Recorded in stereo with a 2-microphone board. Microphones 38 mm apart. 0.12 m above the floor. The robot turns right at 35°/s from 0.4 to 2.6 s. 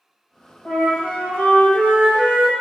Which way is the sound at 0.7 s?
35° left.